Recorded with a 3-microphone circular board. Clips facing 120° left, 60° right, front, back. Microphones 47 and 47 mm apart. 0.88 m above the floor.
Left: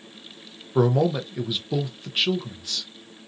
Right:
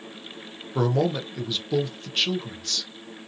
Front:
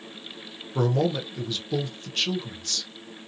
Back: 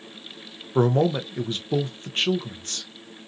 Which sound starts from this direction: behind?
A man speaking, at 0.8 s.